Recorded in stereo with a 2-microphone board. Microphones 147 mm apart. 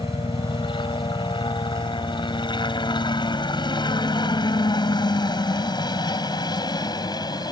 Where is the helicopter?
35° left (ahead or behind); by 7.5 s 30° left (ahead or behind).